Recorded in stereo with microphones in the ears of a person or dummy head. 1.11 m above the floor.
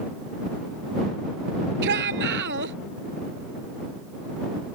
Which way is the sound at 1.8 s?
60° right (ahead or behind).